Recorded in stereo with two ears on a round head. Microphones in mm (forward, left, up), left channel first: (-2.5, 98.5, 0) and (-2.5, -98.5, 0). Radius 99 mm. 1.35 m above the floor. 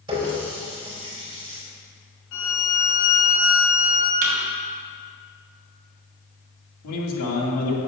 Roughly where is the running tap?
Right.